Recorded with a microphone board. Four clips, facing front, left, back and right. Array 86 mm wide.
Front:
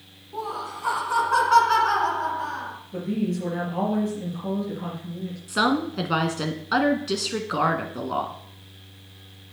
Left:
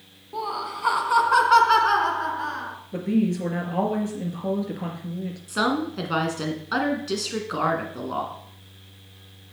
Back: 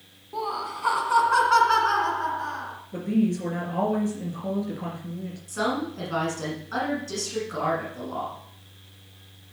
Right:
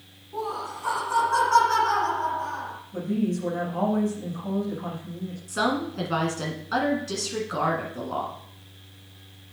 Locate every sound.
0.3 s laughter: 125° left, 1.5 m; by 2.8 s 85° left, 2.5 m
2.9 s a woman speaking: 100° left, 3.5 m
5.5 s a woman speaking: 20° left, 1.6 m